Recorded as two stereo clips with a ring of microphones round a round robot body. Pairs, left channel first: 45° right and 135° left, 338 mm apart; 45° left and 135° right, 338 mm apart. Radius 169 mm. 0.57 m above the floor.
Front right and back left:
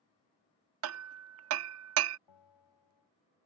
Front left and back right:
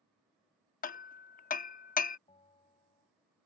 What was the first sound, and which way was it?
Hammering, 105° left.